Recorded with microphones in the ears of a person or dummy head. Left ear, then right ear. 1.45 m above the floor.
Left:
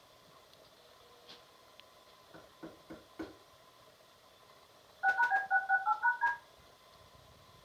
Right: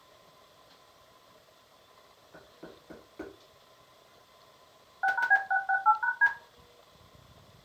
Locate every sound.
2.3 s knocking: 10° left (ahead or behind), 1.2 m
5.0 s a phone buzzing: 30° right (ahead or behind), 1.0 m